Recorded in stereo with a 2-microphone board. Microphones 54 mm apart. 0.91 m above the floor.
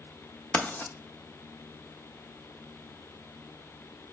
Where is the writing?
35° left (ahead or behind), 0.9 m.